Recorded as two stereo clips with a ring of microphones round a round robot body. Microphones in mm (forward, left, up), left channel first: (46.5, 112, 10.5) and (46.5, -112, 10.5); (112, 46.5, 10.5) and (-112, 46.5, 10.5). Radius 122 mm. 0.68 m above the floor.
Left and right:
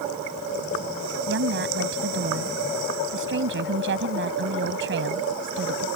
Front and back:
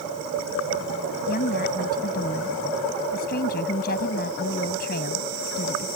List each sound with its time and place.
1.3 s a woman speaking: 55° right